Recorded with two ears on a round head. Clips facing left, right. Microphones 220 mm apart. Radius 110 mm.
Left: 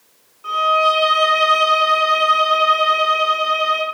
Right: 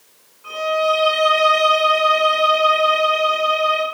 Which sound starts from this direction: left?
A violin, at 0.4 s.